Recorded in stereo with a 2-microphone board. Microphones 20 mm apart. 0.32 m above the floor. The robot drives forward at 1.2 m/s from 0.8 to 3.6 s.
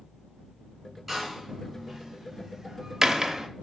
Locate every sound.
1.1 s a door slam: 5° right (ahead or behind), 2.5 m; by 3.5 s 15° right (ahead or behind), 0.9 m